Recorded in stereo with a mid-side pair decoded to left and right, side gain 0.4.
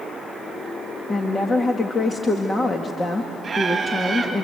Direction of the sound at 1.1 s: 35° left.